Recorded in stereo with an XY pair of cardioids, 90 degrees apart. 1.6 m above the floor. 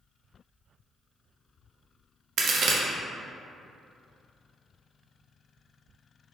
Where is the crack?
70° right, 0.6 m.